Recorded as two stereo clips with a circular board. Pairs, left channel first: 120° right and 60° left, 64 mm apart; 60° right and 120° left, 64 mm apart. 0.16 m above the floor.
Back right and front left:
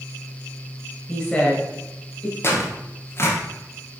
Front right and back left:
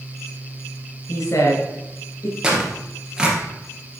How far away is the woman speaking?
About 2 m.